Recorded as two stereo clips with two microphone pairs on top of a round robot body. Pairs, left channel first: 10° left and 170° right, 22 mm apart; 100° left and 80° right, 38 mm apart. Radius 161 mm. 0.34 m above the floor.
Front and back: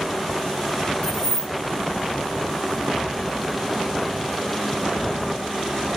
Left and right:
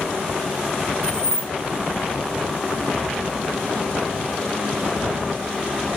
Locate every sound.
1.0 s keys jangling: 25° left, 1.5 m